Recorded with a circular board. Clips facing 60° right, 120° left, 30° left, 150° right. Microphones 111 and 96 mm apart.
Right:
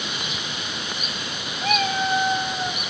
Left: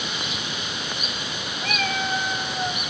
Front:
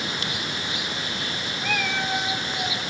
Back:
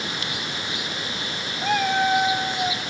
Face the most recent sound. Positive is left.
turn(degrees=-135)